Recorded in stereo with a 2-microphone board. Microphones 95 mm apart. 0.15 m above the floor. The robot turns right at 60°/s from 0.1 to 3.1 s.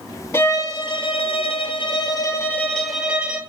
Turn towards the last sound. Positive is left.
turn(degrees=-170)